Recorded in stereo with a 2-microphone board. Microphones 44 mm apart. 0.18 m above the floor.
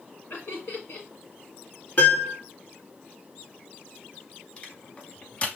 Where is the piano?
45° left (ahead or behind), 1.7 m.